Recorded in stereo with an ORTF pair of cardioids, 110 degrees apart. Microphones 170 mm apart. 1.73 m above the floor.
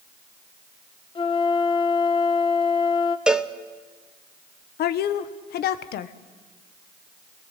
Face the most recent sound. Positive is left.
turn(degrees=70)